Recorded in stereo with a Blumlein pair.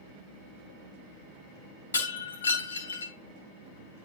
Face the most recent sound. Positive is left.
turn(degrees=70)